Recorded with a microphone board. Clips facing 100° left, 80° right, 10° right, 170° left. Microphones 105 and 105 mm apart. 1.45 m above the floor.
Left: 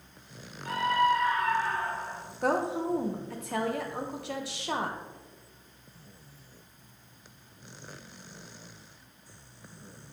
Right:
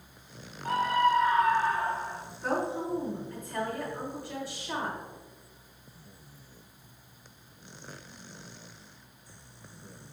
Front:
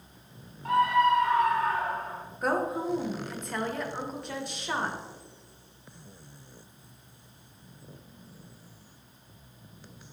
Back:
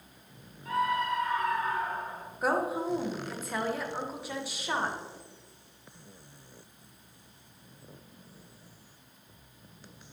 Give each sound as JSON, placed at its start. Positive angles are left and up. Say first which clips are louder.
{"t": 0.7, "sound": "a scream", "louder": "even, front 7 dB", "azimuth_deg": -30, "distance_m": 1.5}
{"t": 2.4, "sound": "a woman speaking", "louder": "left 3 dB, front 1 dB", "azimuth_deg": 85, "distance_m": 1.2}